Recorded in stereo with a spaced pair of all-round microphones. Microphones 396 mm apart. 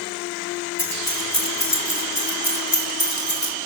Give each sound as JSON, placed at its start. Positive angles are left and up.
{"t": 0.8, "sound": "keys jangling", "side_deg": 85, "distance_m": 4.0}